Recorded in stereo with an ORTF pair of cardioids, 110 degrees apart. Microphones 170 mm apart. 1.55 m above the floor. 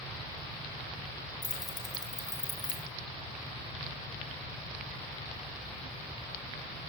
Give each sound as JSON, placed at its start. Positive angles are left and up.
{"t": 1.4, "sound": "keys jangling", "azimuth_deg": 25, "distance_m": 6.0}